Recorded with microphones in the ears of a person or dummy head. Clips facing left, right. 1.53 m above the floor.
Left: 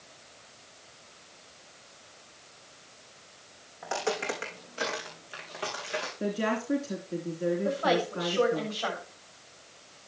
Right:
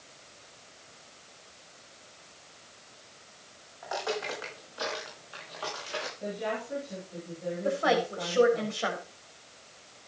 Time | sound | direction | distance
3.8 | footsteps | 40° left (ahead or behind) | 6 m
6.2 | a woman speaking | 80° left | 3.5 m
7.6 | a woman speaking | 25° right (ahead or behind) | 6.5 m